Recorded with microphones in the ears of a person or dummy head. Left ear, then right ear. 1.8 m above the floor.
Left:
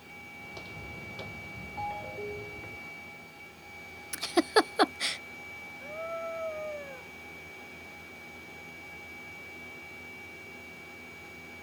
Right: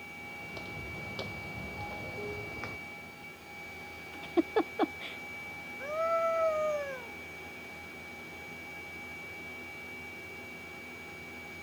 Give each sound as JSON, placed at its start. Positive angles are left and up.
{"t": 0.4, "sound": "footsteps", "side_deg": 15}
{"t": 1.8, "sound": "a ringtone", "side_deg": 40}
{"t": 4.1, "sound": "a giggle", "side_deg": 65}
{"t": 5.8, "sound": "a scream", "side_deg": -40}